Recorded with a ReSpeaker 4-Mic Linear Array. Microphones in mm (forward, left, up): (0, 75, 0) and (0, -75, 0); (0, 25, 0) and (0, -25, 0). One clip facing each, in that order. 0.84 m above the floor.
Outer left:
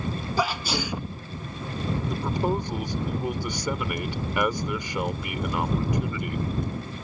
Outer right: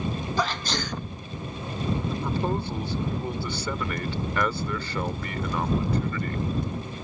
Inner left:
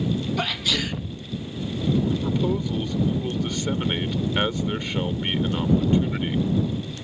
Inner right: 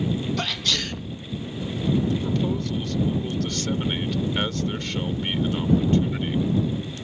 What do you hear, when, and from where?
0.4 s a sneeze: 10° left (ahead or behind)
2.1 s a man speaking: 15° left (ahead or behind)